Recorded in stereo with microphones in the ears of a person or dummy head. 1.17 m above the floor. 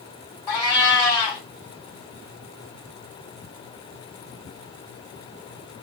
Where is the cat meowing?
20° left (ahead or behind), 1.5 m.